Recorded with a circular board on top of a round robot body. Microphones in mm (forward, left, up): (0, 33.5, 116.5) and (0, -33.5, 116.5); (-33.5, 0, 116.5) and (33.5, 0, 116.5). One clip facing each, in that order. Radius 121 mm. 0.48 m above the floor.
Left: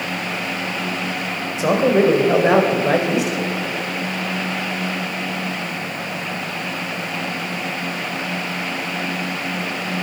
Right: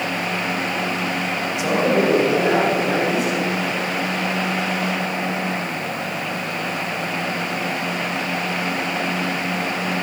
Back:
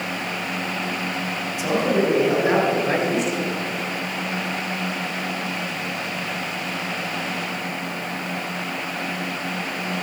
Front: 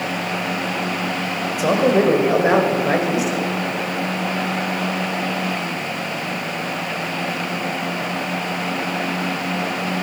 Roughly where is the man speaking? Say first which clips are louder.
Left 3 dB, front 5 dB; ahead left.